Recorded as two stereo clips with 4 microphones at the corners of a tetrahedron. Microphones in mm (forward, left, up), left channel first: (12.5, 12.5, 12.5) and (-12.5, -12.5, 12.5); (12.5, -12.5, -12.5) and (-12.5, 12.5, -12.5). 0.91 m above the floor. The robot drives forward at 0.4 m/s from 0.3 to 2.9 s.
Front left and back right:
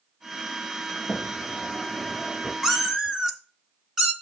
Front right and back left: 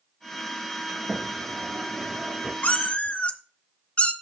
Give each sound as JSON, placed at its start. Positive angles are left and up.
{"t": 0.9, "sound": "a sliding door", "azimuth_deg": 95, "distance_m": 0.6}
{"t": 2.6, "sound": "a cat meowing", "azimuth_deg": -60, "distance_m": 0.8}